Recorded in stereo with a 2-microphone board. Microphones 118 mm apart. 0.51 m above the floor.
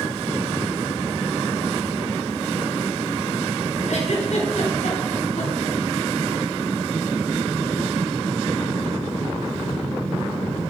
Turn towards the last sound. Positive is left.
turn(degrees=75)  # may be behind; listen again after turning